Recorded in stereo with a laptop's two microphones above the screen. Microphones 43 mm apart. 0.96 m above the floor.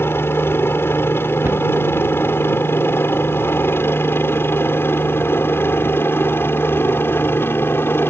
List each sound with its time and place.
0.0 s a helicopter: 65° left (ahead or behind)
1.4 s a cupboard door: 65° right (ahead or behind)